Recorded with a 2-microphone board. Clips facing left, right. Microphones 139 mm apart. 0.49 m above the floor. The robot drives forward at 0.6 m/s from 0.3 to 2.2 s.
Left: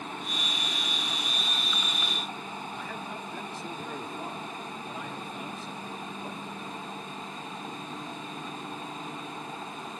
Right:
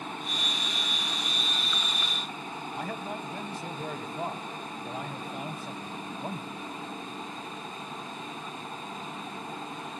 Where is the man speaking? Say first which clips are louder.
Right 3 dB; 50° right (ahead or behind), 3.5 m.